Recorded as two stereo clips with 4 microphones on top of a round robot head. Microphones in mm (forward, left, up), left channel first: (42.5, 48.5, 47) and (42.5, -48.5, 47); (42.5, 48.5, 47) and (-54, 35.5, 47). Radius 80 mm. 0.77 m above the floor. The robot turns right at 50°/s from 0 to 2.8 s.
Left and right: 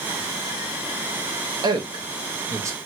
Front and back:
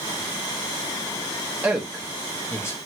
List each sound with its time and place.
1.6 s a man speaking: 100° right, 0.8 m; by 2.8 s 40° right, 0.8 m